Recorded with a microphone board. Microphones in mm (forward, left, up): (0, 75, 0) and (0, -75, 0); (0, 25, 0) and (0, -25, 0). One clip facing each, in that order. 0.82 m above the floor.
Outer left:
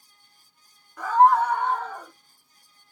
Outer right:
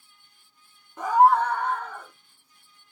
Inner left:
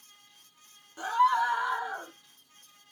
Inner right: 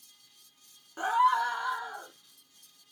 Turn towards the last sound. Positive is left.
turn(degrees=45)  # may be behind; listen again after turning